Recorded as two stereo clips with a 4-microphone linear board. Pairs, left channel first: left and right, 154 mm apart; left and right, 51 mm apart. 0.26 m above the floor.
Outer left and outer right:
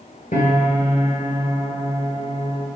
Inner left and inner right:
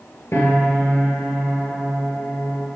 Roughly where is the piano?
Left.